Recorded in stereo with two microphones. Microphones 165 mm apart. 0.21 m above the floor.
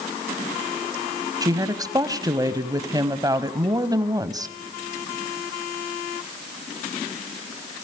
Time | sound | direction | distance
1.4 | a woman speaking | 20° right (ahead or behind) | 1.1 m